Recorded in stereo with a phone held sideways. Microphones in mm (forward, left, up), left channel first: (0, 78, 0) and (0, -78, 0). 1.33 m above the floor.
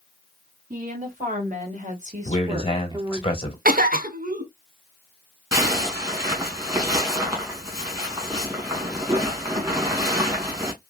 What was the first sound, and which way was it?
A woman speaking, 65° right (ahead or behind).